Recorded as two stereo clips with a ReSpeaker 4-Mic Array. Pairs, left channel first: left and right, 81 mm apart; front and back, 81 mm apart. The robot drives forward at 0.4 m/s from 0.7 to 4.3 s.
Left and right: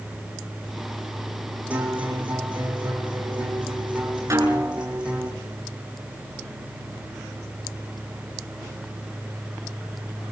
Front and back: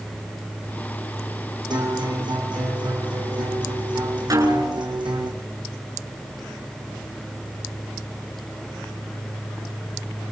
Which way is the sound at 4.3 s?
140° right.